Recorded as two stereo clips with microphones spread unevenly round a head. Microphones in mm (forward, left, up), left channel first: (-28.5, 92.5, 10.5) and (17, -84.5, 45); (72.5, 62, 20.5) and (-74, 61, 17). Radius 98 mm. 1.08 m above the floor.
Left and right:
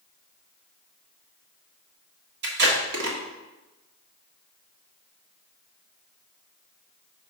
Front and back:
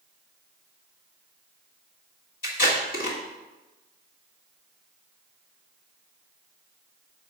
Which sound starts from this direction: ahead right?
Tape being pulled, at 2.4 s.